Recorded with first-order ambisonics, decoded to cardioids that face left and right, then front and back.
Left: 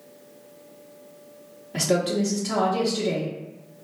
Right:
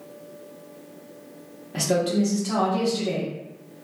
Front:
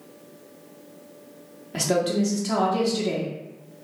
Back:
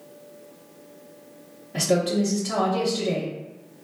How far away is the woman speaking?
About 0.7 m.